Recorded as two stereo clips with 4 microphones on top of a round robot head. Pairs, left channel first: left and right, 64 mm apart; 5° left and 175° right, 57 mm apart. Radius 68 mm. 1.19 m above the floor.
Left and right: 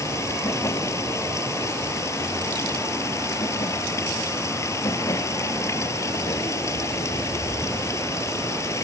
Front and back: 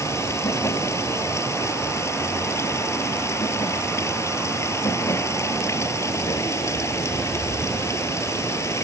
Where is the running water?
45° left.